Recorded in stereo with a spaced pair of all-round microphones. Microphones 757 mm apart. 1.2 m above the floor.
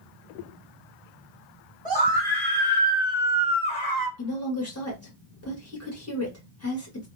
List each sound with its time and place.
1.9 s a scream: 10° left (ahead or behind), 1.7 m; by 4.1 s 35° right (ahead or behind), 1.0 m
4.2 s a woman speaking: 20° left (ahead or behind), 1.6 m